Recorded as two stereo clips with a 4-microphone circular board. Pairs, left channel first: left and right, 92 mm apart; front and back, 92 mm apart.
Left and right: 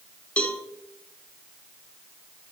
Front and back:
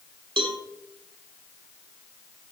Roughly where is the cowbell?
Behind.